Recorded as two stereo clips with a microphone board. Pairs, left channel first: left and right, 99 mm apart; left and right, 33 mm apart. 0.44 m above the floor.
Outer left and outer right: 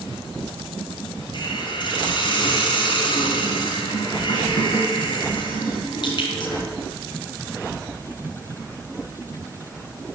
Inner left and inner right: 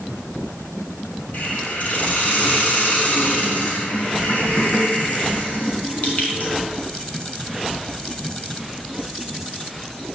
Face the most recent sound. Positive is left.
turn(degrees=50)  # may be behind; listen again after turning